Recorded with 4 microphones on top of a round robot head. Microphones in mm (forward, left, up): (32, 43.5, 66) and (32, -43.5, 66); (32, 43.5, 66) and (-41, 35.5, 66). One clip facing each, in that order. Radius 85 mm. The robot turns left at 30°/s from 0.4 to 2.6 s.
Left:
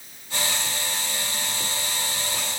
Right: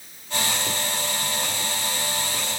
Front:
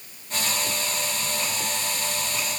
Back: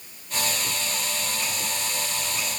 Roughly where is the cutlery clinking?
No cutlery clinking in this recording.